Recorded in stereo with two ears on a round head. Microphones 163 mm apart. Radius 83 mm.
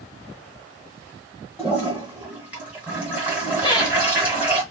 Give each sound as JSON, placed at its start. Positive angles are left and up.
{"t": 1.6, "sound": "a toilet flushing", "side_deg": -10, "distance_m": 1.0}
{"t": 3.6, "sound": "laughter", "side_deg": 20, "distance_m": 0.9}